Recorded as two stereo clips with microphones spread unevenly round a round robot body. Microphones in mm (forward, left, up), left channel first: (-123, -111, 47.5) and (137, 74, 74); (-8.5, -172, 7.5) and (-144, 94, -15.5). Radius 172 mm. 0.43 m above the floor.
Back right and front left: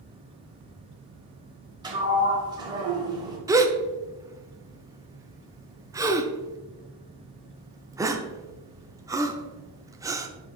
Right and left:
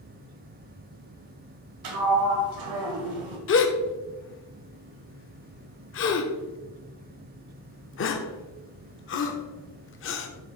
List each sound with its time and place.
1.8 s a sliding door: 115° left, 1.5 m
3.5 s a gasp: 45° right, 0.8 m